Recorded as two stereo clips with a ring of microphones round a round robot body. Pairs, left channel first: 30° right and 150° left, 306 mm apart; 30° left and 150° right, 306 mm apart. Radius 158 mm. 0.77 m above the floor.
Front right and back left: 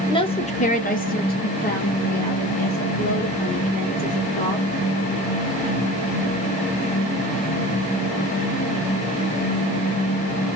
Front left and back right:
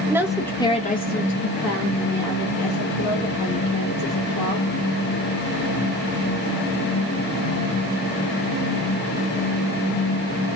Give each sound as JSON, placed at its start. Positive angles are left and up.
{"t": 0.1, "sound": "a woman speaking", "azimuth_deg": -85, "distance_m": 0.8}